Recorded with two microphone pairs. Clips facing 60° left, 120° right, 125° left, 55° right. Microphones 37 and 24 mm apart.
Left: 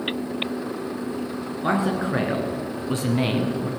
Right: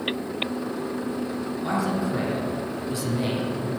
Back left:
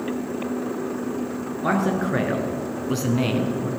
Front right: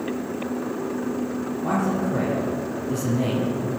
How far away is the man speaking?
About 2.5 m.